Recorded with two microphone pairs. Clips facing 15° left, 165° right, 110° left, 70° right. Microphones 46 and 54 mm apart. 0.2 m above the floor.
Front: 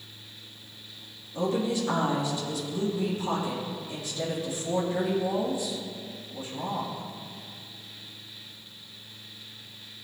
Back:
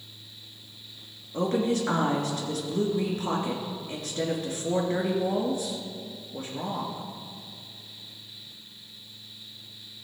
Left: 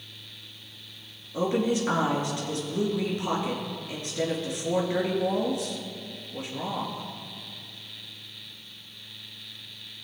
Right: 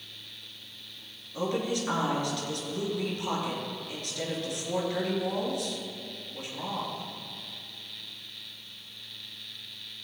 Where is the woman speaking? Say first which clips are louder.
Back 2 dB, left 5 dB; 175° left, 3 m.